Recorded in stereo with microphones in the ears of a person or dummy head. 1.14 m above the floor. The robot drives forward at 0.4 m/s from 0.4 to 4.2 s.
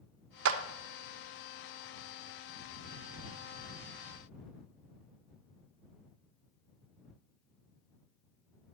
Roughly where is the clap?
Right.